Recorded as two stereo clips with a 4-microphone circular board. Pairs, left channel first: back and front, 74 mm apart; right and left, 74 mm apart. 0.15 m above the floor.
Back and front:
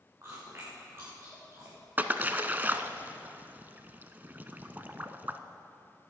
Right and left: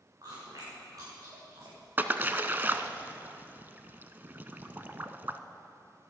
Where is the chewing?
55° left, 6 m.